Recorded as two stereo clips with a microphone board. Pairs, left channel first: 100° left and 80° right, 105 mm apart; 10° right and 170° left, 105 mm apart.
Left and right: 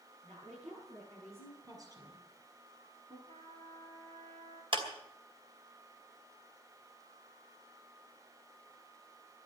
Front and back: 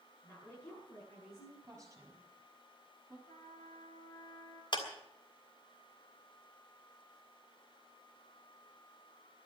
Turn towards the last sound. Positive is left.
turn(degrees=-50)